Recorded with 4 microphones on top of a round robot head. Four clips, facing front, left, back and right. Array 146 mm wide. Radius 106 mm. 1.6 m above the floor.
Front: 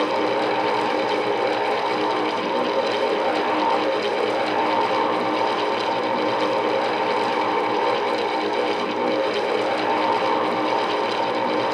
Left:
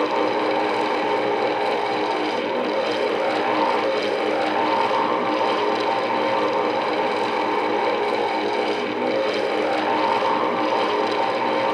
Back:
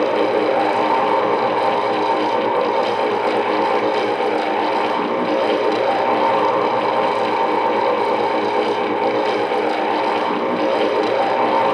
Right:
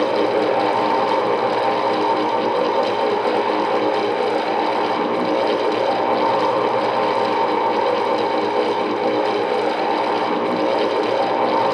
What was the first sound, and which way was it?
Only background noise.